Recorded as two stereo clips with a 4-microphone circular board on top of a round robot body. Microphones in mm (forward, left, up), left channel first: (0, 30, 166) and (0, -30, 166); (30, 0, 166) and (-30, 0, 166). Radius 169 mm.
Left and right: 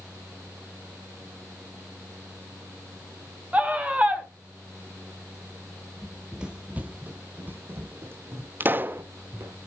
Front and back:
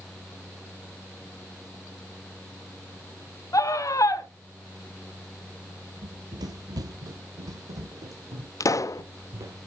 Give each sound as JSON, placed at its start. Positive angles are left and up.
{"t": 3.5, "sound": "a scream", "azimuth_deg": -25, "distance_m": 2.5}
{"t": 6.0, "sound": "running footsteps", "azimuth_deg": 175, "distance_m": 0.7}
{"t": 8.6, "sound": "a pop", "azimuth_deg": -35, "distance_m": 0.8}